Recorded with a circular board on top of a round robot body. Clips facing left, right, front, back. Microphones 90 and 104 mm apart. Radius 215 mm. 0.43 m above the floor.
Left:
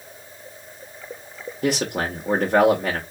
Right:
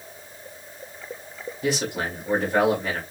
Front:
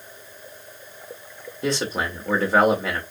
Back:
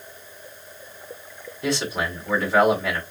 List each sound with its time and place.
1.6 s a man speaking: 65° left, 2 m